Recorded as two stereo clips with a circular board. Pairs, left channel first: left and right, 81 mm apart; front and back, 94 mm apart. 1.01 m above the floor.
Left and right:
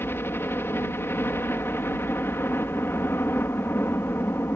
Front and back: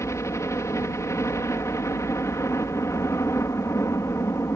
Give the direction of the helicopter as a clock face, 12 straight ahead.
11 o'clock.